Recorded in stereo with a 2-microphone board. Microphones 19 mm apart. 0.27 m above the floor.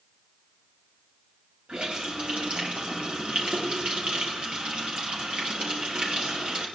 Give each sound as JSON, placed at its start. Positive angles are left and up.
{"t": 1.7, "sound": "a running tap", "side_deg": -60, "distance_m": 4.0}